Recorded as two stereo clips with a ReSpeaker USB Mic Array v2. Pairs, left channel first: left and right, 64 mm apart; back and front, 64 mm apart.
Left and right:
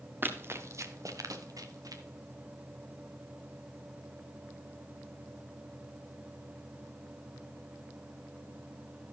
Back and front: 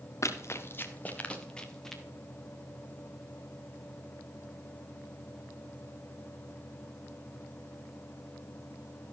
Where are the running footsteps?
145° right, 1.7 m; by 2.0 s 95° right, 2.5 m.